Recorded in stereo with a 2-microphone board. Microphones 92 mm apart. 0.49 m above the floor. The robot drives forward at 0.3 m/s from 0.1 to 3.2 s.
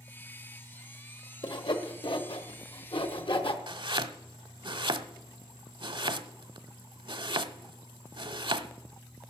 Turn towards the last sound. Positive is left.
turn(degrees=-60)  # may be behind; listen again after turning